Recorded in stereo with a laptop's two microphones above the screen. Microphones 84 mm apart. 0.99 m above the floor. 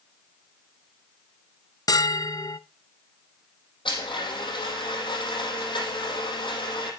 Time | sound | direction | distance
1.9 | a bell | 50° left (ahead or behind) | 0.7 m
3.9 | a blender | 75° left (ahead or behind) | 7 m